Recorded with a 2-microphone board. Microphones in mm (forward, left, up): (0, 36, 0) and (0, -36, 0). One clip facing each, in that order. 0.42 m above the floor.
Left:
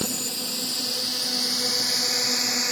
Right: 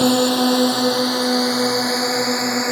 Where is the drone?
70° right (ahead or behind); by 2.7 s 35° right (ahead or behind).